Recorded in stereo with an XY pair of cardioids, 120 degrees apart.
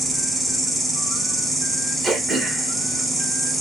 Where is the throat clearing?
45° right, 0.9 m.